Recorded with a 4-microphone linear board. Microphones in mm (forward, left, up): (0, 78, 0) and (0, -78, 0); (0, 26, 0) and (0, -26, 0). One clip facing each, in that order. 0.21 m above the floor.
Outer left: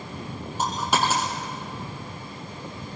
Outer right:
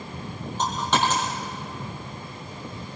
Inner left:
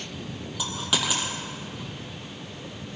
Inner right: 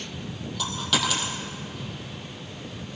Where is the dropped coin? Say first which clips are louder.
Outer right 1 dB, inner right 2 dB; 10° left (ahead or behind), 3.5 m.